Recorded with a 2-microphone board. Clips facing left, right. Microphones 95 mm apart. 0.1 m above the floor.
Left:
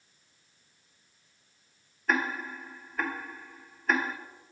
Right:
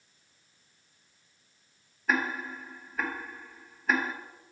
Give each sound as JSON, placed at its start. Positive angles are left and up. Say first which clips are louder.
{"t": 2.1, "sound": "ticking", "louder": "even", "side_deg": -5, "distance_m": 1.1}